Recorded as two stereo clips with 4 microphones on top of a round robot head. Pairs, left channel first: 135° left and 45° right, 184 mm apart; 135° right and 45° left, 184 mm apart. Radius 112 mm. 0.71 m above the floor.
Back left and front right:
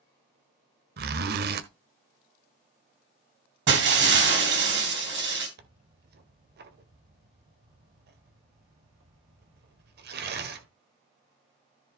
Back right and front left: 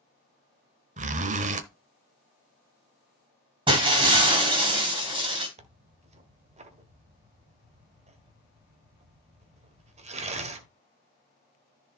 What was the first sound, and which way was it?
A zipper, 5° right.